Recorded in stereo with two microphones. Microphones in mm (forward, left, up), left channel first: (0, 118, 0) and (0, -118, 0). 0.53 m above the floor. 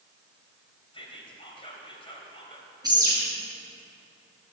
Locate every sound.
0.9 s whispering: 25° left (ahead or behind), 3 m
2.8 s a bird: 15° right (ahead or behind), 6 m